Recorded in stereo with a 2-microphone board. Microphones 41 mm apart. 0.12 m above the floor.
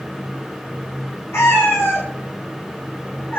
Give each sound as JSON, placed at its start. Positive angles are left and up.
{"t": 1.3, "sound": "a cat meowing", "side_deg": 75, "distance_m": 3.5}